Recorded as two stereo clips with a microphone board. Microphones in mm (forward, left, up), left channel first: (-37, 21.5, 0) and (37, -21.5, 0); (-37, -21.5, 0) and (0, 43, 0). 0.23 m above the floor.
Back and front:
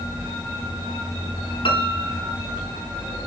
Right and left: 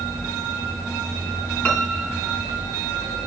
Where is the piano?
170° left, 3.5 m.